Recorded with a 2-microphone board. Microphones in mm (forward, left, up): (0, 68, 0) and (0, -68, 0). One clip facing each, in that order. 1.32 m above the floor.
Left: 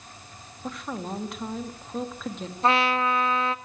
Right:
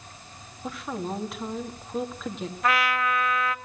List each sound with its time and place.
0.6 s a woman speaking: centre (ahead or behind), 2.5 m
2.6 s a trumpet: 30° left (ahead or behind), 0.8 m